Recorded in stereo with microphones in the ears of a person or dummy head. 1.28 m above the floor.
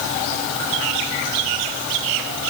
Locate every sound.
Only background noise.